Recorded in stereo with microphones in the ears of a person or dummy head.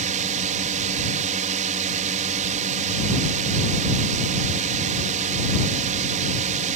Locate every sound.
0.0 s a drone: 40° right (ahead or behind)